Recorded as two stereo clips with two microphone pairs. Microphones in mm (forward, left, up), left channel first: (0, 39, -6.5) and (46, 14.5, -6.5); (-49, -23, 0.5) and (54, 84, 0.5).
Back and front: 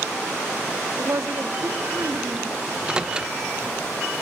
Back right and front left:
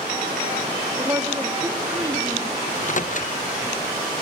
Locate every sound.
1.0 s a woman speaking: 20° right, 3 m
2.7 s a microwave: 100° right, 1.0 m